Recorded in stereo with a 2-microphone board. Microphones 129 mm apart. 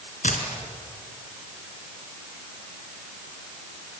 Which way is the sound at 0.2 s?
75° left (ahead or behind).